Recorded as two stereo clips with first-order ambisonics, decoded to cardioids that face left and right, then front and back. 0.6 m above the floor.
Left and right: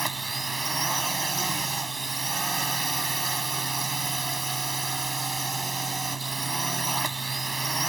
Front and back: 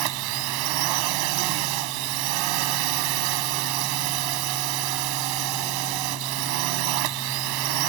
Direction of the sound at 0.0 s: 170° right.